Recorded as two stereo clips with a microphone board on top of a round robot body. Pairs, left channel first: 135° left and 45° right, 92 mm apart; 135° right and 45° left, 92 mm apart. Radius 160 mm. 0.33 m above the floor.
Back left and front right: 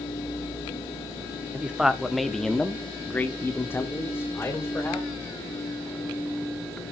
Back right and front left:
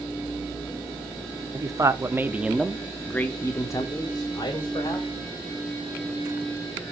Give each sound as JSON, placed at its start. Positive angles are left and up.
{"t": 1.5, "sound": "a man speaking", "azimuth_deg": 30, "distance_m": 1.6}